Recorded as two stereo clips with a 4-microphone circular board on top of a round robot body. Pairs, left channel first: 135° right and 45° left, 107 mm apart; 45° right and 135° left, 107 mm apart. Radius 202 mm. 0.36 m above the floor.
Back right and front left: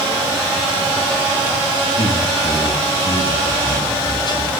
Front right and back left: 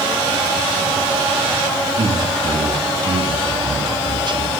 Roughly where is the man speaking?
Behind.